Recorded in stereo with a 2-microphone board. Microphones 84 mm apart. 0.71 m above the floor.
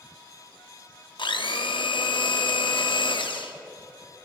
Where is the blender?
75° left (ahead or behind), 0.6 m.